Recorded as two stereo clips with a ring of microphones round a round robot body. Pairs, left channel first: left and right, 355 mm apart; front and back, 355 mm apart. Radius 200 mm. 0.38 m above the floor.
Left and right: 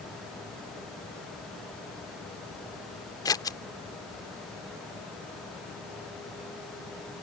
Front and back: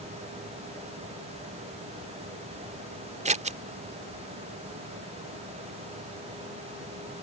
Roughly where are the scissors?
Behind left.